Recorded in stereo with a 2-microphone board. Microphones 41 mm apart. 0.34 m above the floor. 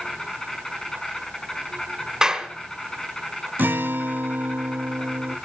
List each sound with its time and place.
0.0 s an insect: 15° left (ahead or behind), 5 m
2.2 s a clap: 15° right (ahead or behind), 2.5 m
3.6 s a guitar: 60° right (ahead or behind), 0.7 m